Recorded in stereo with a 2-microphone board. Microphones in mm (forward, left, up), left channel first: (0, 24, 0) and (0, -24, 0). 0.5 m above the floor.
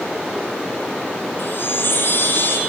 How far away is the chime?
About 1.6 m.